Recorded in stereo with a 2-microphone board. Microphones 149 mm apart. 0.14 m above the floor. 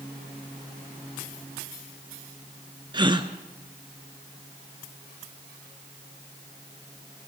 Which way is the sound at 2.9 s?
30° right (ahead or behind).